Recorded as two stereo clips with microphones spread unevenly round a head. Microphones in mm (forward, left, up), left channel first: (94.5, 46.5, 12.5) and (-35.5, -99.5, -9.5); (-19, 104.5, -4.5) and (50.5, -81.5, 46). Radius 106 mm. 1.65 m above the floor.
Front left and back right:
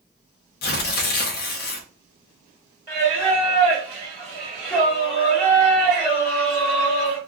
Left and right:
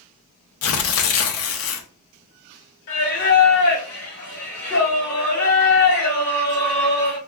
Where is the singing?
150° left, 1.7 m.